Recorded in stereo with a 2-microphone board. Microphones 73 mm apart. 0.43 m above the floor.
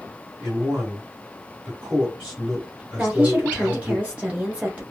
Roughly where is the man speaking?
Centre.